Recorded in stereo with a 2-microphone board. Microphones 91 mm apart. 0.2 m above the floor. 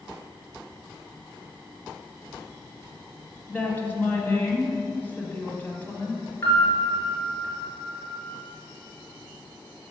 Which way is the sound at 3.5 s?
20° left (ahead or behind).